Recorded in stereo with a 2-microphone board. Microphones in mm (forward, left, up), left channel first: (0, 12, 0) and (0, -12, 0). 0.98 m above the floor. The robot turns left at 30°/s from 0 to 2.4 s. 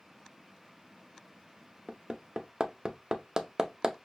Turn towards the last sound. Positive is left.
turn(degrees=-30)  # may be behind; listen again after turning